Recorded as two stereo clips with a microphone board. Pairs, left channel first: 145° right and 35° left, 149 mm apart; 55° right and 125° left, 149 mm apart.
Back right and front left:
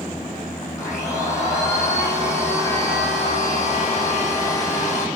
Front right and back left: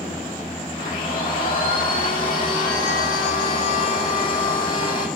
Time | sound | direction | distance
0.8 | a blender | 75° right | 6.5 m